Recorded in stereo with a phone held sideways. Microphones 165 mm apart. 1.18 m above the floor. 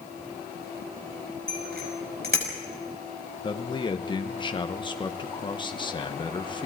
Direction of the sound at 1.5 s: 70° right (ahead or behind).